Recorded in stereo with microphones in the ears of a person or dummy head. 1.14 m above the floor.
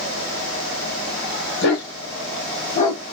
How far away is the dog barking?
About 1.9 m.